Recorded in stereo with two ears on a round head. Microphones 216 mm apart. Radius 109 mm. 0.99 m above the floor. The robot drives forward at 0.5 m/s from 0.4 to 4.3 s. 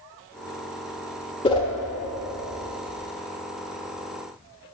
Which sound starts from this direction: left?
A whoosh, at 1.4 s.